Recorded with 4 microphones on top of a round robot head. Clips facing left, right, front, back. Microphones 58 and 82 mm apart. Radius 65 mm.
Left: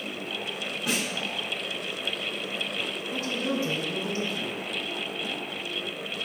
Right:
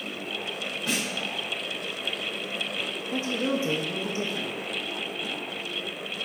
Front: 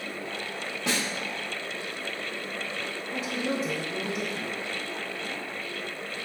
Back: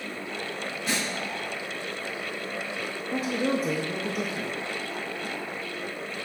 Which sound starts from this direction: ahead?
A snare drum, at 0.9 s.